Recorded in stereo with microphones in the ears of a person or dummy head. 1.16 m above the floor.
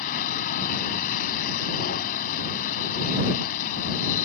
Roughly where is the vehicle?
Left.